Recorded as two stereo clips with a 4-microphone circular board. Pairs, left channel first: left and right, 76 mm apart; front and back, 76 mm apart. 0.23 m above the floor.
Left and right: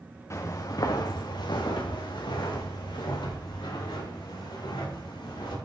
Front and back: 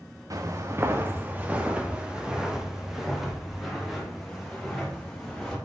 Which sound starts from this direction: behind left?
Footsteps, at 0.3 s.